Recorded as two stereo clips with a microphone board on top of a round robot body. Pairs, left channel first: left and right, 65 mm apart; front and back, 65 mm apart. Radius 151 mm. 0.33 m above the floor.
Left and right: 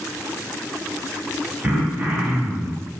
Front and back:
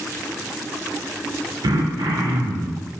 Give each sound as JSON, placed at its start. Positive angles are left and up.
{"t": 1.6, "sound": "throat clearing", "azimuth_deg": -155, "distance_m": 0.5}